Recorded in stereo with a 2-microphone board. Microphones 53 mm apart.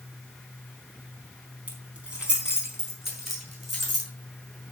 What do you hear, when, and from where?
1.7 s keys jangling: 25° right (ahead or behind), 4.5 m; by 4.1 s 5° left (ahead or behind), 6 m